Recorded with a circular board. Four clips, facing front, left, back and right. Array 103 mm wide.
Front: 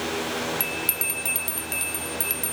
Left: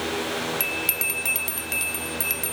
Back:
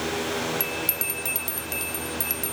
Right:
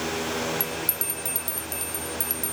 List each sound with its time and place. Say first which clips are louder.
0.6 s a bell: left 1 dB, back 1 dB; 80° left